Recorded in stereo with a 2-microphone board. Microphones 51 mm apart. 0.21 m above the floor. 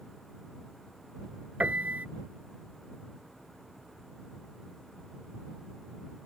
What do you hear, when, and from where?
1.6 s a piano: 30° right (ahead or behind)